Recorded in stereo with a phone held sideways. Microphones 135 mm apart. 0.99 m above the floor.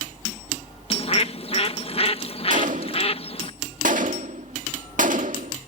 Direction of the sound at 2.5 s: 75° right (ahead or behind).